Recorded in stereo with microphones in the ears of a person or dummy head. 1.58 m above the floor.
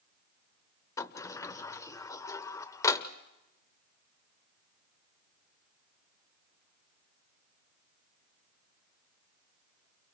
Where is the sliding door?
15° left (ahead or behind), 0.7 m.